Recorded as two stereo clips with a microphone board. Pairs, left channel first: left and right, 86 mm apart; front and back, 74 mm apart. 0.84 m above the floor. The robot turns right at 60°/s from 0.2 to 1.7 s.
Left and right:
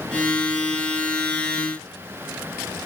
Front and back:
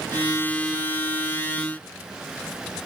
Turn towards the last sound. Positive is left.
No sound to turn to.